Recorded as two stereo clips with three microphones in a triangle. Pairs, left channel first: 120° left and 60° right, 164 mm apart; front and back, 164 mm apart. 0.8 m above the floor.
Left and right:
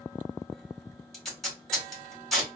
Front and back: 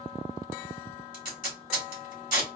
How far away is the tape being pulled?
About 2.5 m.